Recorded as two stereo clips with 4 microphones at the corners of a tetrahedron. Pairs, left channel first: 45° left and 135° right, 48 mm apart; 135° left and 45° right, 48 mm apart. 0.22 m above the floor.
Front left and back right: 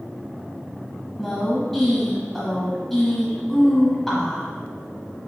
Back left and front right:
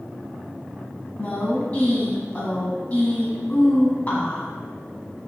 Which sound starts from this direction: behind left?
A woman speaking, at 1.2 s.